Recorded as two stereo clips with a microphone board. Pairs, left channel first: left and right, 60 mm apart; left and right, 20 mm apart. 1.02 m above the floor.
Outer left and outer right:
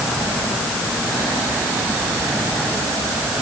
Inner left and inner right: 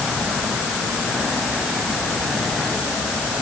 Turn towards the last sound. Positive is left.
No sound to turn to.